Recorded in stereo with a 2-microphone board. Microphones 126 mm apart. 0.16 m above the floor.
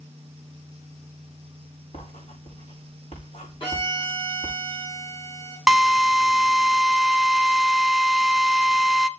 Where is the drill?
5° right (ahead or behind), 0.8 m.